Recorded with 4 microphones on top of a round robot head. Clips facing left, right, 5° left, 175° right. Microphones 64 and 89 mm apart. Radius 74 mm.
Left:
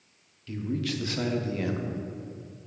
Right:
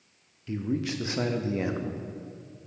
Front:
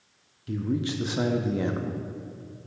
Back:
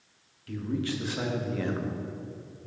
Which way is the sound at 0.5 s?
45° right.